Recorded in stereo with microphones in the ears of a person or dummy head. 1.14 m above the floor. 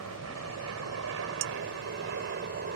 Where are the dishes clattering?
55° right (ahead or behind).